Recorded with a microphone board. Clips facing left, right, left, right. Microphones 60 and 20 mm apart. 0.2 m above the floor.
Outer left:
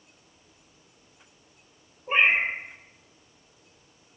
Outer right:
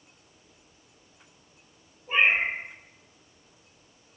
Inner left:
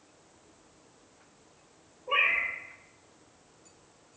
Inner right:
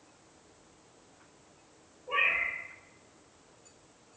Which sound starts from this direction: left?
A cat meowing, at 2.1 s.